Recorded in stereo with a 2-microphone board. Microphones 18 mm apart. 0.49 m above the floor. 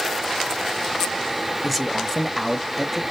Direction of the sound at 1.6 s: 10° left (ahead or behind).